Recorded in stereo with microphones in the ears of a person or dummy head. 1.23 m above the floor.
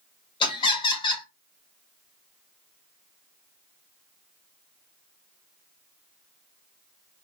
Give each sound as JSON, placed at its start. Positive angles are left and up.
{"t": 0.4, "sound": "laughter", "side_deg": 25, "distance_m": 1.3}